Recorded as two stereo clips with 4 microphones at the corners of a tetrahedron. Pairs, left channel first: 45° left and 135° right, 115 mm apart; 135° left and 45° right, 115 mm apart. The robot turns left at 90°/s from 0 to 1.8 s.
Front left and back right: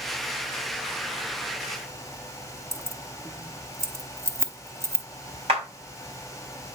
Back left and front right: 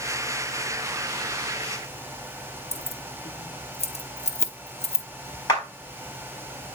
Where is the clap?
170° right, 3.5 m.